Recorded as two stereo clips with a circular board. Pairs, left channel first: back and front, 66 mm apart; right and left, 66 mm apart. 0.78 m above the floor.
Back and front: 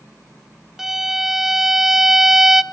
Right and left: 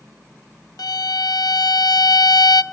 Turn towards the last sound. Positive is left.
turn(degrees=-85)